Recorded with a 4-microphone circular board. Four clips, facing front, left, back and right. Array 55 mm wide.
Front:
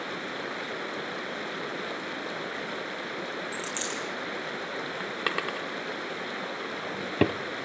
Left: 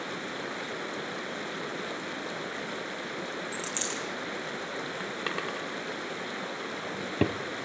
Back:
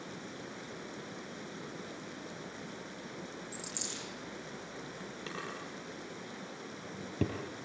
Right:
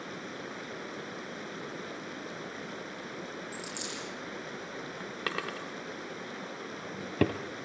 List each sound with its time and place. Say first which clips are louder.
0.0 s running water: left 5 dB, front 11 dB; 20° left, 0.8 m
3.5 s a dropped coin: left 5 dB, front 11 dB; 35° left, 5.5 m
5.3 s a drawer: even, front 12 dB; 5° right, 1.8 m